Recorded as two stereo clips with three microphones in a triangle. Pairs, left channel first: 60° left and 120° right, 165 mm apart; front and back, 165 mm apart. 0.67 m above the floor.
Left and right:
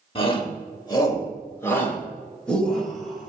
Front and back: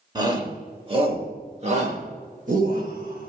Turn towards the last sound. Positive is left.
turn(degrees=150)